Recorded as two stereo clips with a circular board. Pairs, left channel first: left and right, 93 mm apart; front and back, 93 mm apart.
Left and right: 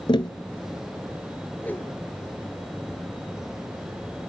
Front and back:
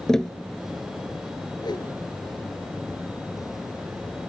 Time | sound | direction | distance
0.1 | tapping | 85° left | 0.8 m
1.6 | a whoosh | 25° left | 2.5 m